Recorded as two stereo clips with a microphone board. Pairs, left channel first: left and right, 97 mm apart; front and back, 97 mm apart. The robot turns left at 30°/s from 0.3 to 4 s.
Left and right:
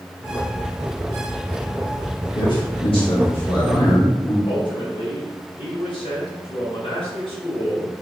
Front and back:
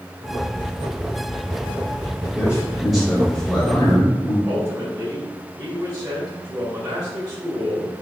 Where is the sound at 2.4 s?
110° left, 2.5 m; by 4.3 s 60° left, 2.5 m.